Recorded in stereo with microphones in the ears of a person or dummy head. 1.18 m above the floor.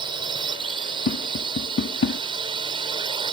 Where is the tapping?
65° left (ahead or behind).